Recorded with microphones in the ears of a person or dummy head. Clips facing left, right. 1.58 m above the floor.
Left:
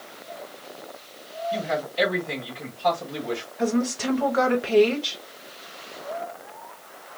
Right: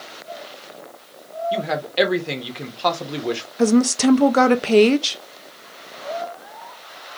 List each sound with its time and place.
1.5 s a man speaking: 75° right (ahead or behind), 1.3 m
3.6 s a woman speaking: 50° right (ahead or behind), 0.6 m